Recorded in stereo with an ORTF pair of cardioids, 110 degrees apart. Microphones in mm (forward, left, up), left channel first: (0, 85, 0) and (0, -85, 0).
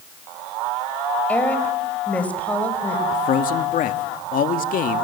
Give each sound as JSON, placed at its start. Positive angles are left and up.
{"t": 1.3, "sound": "a woman speaking", "azimuth_deg": 10, "distance_m": 4.5}
{"t": 3.1, "sound": "a man speaking", "azimuth_deg": 55, "distance_m": 1.9}